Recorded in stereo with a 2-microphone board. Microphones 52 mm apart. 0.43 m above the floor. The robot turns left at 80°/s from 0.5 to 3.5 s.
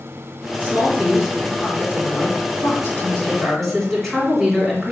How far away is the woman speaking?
About 2 m.